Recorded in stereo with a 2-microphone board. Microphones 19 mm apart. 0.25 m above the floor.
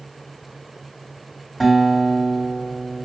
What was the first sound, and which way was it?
A guitar, 10° right (ahead or behind).